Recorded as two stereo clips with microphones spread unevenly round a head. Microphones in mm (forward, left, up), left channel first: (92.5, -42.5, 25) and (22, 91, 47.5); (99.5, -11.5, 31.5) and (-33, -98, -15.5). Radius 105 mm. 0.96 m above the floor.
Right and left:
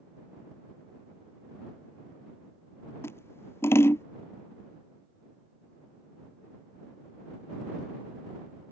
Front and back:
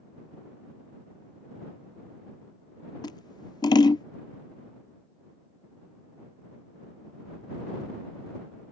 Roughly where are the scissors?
Ahead.